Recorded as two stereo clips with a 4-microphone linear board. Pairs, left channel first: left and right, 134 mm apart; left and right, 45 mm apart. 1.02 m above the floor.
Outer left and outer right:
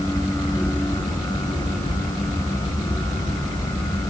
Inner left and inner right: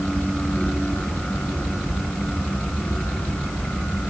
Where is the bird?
I don't hear a bird.